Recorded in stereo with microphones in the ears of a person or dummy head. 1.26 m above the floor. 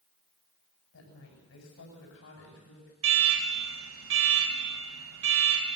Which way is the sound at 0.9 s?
80° left.